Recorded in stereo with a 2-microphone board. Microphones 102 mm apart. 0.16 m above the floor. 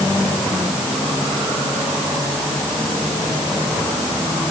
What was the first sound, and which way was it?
Only background noise.